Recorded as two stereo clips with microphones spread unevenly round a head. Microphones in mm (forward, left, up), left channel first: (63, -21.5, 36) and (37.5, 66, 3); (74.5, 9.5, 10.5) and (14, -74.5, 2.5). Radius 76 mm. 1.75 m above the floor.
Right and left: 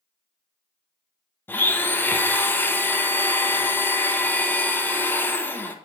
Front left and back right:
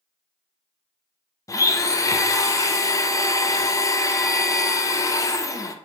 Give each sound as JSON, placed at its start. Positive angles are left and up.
{"t": 1.5, "sound": "a blender", "azimuth_deg": -5, "distance_m": 0.7}